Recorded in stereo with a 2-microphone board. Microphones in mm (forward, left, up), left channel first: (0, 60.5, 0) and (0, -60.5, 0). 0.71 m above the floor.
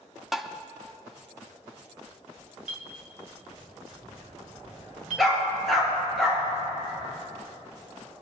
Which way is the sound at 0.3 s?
5° right (ahead or behind).